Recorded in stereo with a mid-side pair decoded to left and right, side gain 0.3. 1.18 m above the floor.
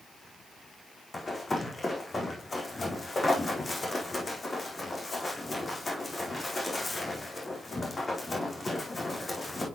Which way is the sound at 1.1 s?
40° left.